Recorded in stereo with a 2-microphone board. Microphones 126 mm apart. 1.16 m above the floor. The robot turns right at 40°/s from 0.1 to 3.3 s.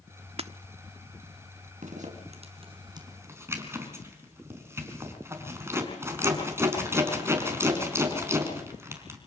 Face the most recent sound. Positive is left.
turn(degrees=-20)  # may be behind; listen again after turning